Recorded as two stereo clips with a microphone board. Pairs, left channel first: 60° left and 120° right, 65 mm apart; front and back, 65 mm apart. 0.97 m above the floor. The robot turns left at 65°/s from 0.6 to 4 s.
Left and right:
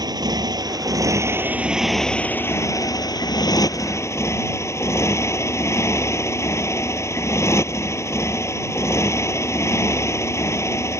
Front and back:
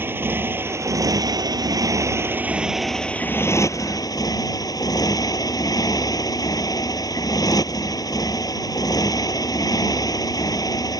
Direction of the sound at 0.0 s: 125° right.